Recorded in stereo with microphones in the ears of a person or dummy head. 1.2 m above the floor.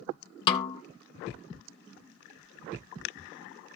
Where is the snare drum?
25° left (ahead or behind), 1.0 m.